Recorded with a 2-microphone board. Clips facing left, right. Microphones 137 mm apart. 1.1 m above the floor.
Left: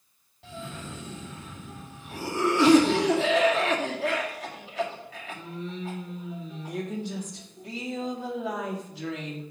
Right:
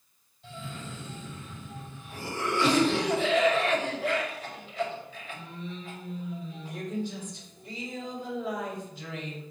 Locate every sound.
0.4 s a cough: 85° left, 2 m